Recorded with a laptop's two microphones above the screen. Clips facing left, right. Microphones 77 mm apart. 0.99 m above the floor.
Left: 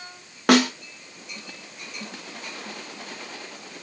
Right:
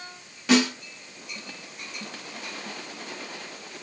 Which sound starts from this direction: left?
A snare drum, at 0.5 s.